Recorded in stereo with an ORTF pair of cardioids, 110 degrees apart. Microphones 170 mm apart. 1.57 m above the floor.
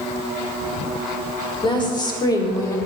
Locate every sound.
1.6 s a woman speaking: 25° left, 4.5 m; by 2.8 s 20° left, 4.5 m